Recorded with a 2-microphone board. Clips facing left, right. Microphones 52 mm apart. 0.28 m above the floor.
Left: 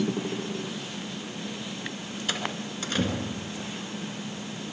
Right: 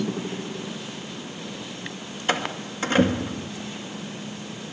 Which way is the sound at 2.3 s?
35° right (ahead or behind).